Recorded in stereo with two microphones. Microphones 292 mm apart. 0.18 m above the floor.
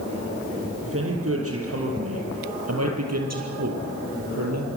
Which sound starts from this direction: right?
A man speaking, at 0.8 s.